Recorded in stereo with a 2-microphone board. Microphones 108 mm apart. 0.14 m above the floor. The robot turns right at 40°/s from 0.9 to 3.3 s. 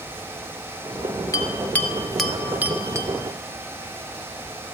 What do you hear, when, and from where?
1.3 s a bell: 30° left (ahead or behind), 1.0 m; by 3.1 s 30° right (ahead or behind), 1.0 m